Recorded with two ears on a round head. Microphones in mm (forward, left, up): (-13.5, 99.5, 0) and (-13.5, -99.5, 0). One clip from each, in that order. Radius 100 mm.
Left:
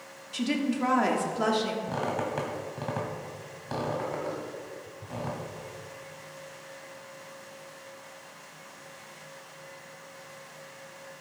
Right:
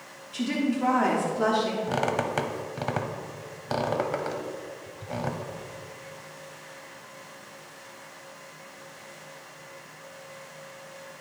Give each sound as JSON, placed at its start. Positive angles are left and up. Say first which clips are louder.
{"t": 0.3, "sound": "a woman speaking", "louder": "right 1 dB", "side_deg": 25, "distance_m": 1.2}
{"t": 1.9, "sound": "a squeak", "louder": "right 4 dB", "side_deg": -30, "distance_m": 1.1}